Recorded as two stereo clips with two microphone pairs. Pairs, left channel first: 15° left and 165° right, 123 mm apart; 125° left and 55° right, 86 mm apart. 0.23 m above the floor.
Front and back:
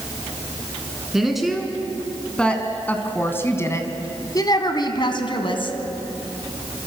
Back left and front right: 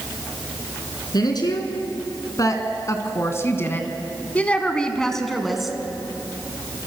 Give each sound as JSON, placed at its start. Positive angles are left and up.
{"t": 1.1, "sound": "a woman speaking", "azimuth_deg": 110, "distance_m": 3.0}